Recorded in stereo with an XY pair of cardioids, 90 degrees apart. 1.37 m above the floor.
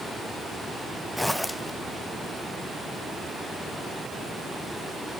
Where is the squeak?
I don't hear a squeak.